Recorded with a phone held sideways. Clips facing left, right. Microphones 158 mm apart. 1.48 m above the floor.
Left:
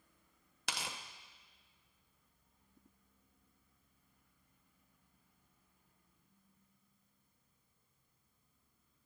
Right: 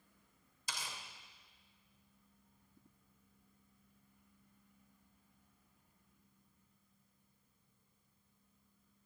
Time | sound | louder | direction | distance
0.7 | tearing paper | left 3 dB | 75° left (ahead or behind) | 1.2 m